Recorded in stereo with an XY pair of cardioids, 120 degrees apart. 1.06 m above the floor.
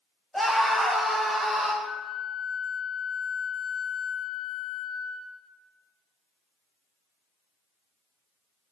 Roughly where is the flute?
Ahead left.